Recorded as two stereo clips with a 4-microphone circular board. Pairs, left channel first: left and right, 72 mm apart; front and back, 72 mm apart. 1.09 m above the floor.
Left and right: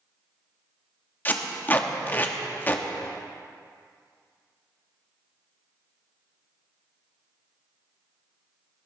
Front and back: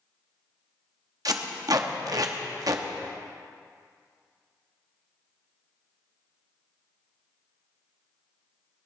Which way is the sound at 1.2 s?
155° left.